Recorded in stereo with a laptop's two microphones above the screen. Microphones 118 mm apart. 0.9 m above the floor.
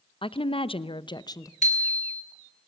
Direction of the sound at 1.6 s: 85° left.